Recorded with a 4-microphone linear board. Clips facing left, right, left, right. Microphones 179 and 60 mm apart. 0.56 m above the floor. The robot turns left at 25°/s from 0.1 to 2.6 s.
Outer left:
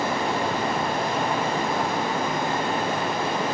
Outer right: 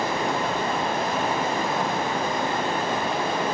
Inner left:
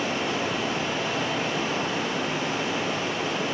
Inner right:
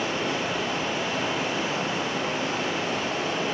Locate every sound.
0.0 s running water: 20° left, 1.9 m; by 3.5 s 45° right, 1.9 m